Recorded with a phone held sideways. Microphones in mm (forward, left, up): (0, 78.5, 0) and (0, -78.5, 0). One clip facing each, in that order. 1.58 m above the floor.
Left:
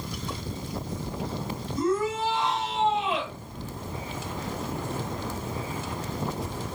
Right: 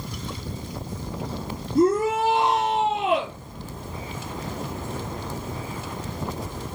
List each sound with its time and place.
1.8 s a shout: 65° right (ahead or behind), 4 m